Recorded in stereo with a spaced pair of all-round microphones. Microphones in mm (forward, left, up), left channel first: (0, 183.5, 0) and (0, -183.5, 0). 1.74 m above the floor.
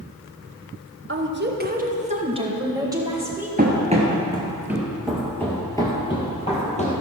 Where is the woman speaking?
35° right (ahead or behind), 1.1 m; by 3.5 s 5° right (ahead or behind), 2 m.